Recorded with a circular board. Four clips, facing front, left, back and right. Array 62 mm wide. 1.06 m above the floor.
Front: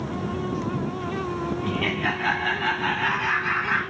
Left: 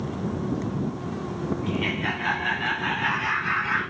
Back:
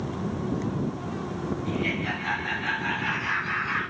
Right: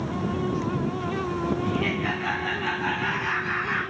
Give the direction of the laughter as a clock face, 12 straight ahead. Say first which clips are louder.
Right 1 dB, front 3 dB; 11 o'clock.